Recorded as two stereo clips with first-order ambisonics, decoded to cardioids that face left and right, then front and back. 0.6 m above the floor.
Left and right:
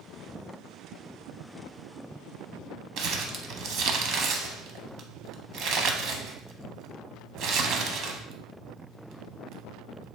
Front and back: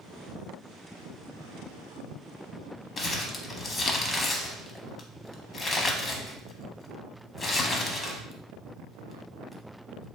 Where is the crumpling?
65° right, 0.6 m.